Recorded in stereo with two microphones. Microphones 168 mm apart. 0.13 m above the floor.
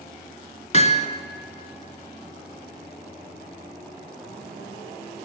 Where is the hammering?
45° left (ahead or behind), 0.9 m.